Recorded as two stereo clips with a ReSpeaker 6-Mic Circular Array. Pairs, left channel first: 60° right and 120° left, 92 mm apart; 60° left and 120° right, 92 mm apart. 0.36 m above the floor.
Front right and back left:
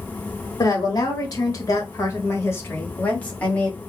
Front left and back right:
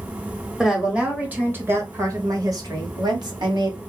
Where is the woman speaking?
35° right, 1.3 m; by 3.8 s 135° right, 1.7 m.